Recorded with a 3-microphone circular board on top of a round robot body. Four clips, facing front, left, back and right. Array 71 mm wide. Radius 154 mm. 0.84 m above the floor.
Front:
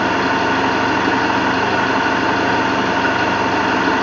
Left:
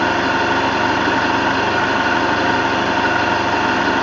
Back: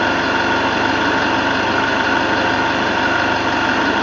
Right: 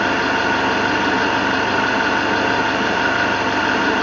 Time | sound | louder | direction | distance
0.0 | an engine running | left 1 dB, even | 10° left | 5.5 m